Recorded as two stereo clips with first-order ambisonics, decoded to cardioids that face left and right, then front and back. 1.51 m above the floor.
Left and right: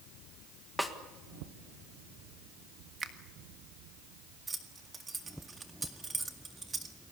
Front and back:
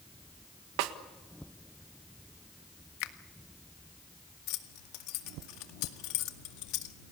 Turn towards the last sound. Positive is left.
turn(degrees=-15)